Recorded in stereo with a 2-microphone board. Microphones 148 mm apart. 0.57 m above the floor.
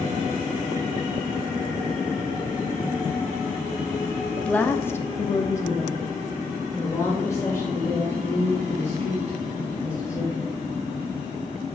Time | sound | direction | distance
4.3 | a woman speaking | 10° left (ahead or behind) | 0.7 m